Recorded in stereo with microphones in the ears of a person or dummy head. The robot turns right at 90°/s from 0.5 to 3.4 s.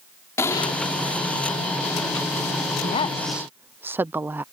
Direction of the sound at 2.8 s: 140° left.